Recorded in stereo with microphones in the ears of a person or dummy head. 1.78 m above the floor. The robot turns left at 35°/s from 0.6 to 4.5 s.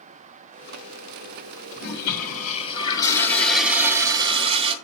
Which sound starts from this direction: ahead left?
A toilet flushing, at 1.8 s.